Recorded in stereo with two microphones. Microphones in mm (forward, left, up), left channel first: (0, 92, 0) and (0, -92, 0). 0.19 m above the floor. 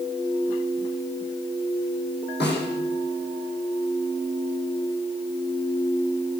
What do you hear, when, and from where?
2.4 s a snare drum: 70° left (ahead or behind), 7.5 m